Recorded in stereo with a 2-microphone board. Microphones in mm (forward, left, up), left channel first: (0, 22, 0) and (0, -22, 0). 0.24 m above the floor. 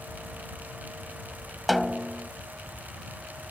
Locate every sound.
1.7 s a snare drum: centre (ahead or behind)